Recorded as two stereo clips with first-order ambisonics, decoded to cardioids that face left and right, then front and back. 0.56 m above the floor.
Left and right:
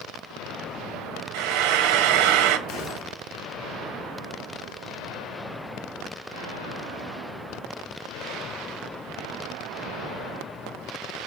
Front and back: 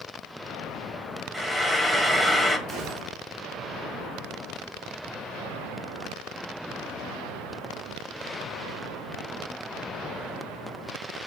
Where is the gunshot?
140° left, 6 m.